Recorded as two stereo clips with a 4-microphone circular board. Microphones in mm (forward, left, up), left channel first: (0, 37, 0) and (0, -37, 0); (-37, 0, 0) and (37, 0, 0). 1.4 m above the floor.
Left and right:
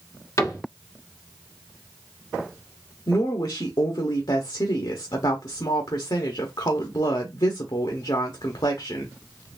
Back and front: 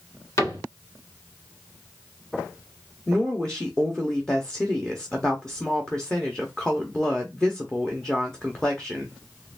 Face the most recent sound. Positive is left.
turn(degrees=100)